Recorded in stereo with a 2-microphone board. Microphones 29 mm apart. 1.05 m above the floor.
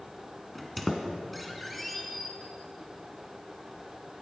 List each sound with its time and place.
0.6 s a squeak: 5° left (ahead or behind), 1.8 m